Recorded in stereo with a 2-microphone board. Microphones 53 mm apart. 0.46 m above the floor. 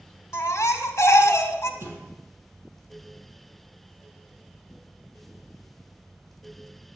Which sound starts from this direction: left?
A baby crying, at 0.3 s.